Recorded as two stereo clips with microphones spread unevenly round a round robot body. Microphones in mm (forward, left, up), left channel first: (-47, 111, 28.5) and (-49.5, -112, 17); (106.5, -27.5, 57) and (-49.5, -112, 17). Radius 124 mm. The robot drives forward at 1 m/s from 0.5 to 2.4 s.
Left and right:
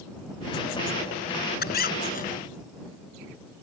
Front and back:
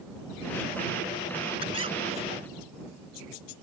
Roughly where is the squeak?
Behind left.